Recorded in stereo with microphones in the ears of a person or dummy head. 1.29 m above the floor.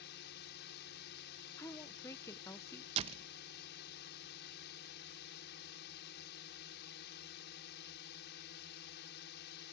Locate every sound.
0.0 s a drone: 55° left (ahead or behind)
1.6 s a woman speaking: 10° left (ahead or behind)
3.0 s a door slam: 40° right (ahead or behind)